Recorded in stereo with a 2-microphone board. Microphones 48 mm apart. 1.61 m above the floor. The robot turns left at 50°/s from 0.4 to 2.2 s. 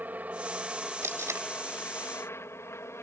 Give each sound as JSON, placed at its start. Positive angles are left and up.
{"t": 0.0, "sound": "a helicopter", "side_deg": -35}
{"t": 1.0, "sound": "tape being pulled", "side_deg": -65}